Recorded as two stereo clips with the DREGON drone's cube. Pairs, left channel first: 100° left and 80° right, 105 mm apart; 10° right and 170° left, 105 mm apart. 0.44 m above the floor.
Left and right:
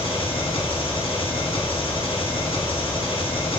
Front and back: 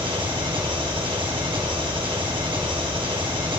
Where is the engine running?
130° left, 2.5 m.